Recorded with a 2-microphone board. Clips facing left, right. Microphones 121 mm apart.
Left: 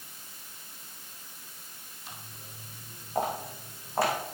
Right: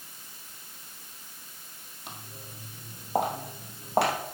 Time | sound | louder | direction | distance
2.1 | footsteps | right 4 dB | 60° right (ahead or behind) | 3 m